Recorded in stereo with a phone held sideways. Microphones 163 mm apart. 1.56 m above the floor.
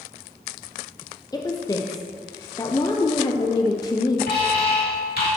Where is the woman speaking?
25° left (ahead or behind), 0.6 m.